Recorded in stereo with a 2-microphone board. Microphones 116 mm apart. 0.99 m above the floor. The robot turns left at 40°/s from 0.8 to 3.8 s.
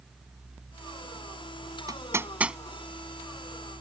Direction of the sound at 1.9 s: 35° right (ahead or behind).